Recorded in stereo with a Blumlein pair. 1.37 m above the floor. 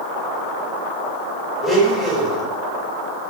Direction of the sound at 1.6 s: 15° right.